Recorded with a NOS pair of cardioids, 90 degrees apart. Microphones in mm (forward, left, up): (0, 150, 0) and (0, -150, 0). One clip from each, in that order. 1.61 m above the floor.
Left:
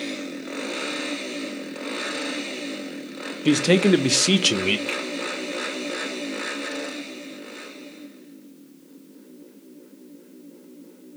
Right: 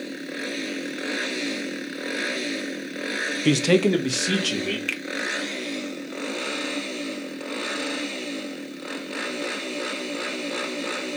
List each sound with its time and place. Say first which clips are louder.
3.5 s a man speaking: left 2 dB; 10° right, 0.6 m; by 4.8 s 55° left, 0.9 m
4.9 s a finger snap: left 1 dB; 25° right, 0.8 m